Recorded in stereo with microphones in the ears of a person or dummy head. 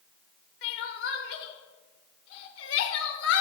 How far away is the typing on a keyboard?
I don't hear typing on a keyboard.